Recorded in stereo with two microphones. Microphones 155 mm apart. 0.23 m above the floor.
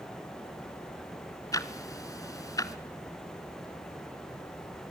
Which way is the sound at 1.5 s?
20° left (ahead or behind).